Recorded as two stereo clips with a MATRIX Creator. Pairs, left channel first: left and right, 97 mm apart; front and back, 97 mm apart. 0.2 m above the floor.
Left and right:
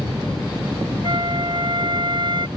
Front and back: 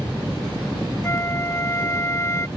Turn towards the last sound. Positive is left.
turn(degrees=-60)